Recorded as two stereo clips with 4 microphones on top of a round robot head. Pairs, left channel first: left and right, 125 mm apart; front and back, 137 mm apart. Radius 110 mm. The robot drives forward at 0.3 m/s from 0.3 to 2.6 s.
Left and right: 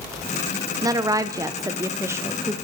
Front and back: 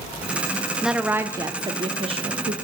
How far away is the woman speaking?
About 0.5 m.